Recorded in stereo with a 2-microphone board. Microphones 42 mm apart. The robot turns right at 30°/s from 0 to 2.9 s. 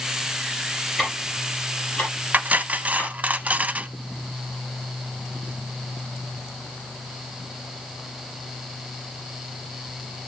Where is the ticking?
5° right (ahead or behind), 6.5 m; by 3.1 s 50° left (ahead or behind), 6.5 m.